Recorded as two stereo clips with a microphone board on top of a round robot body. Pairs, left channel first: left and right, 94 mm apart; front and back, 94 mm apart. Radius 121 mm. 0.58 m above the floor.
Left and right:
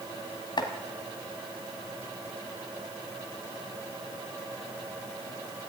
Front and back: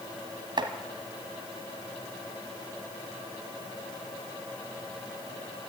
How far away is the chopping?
About 1.2 m.